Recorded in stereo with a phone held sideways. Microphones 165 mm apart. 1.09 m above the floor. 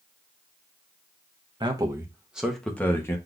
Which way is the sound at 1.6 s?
30° right (ahead or behind).